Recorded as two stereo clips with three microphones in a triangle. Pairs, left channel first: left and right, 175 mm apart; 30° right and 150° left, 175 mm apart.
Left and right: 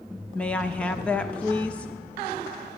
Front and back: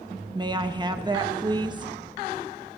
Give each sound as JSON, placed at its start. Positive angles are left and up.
{"t": 0.3, "sound": "a woman speaking", "azimuth_deg": 160, "distance_m": 0.7}